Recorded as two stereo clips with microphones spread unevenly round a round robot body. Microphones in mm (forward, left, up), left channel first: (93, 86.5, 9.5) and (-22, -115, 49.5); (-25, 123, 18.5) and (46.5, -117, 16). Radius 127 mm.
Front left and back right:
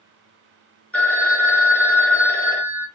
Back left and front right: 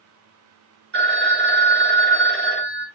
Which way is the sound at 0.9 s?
25° right.